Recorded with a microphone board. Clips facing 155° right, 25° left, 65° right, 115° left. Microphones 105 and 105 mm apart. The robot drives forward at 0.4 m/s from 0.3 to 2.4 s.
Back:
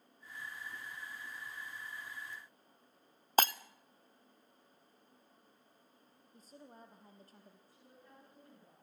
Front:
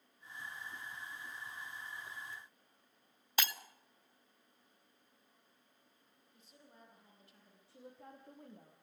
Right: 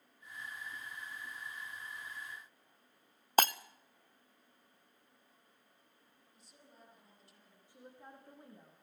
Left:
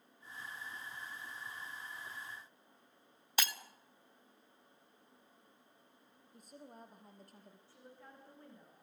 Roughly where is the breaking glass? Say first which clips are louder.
Back 10 dB, right 11 dB; right.